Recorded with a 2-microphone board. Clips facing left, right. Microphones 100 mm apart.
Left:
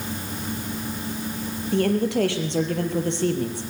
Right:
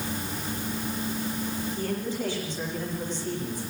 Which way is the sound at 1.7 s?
70° left (ahead or behind).